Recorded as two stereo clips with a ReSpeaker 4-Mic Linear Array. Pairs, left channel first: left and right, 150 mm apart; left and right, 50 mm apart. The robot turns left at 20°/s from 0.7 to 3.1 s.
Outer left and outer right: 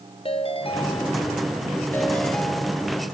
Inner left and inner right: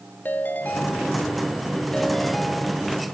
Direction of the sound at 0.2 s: 40° left.